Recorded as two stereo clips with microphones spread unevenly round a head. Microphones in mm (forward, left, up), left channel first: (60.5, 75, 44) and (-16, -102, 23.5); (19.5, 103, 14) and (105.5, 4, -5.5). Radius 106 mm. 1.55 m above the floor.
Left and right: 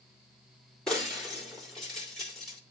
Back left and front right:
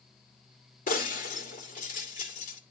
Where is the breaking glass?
150° left, 2 m.